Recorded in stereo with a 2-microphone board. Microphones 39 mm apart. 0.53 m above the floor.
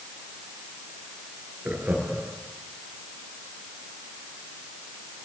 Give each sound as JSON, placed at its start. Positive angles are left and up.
{"t": 1.6, "sound": "laughter", "side_deg": -45, "distance_m": 8.5}